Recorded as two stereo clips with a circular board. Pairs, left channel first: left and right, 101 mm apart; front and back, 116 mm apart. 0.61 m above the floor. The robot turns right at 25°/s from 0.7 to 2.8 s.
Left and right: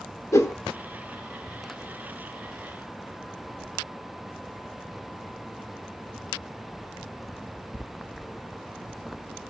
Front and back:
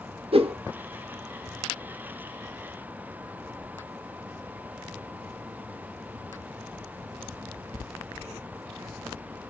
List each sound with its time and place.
0.3 s a whoosh: 150° left, 0.6 m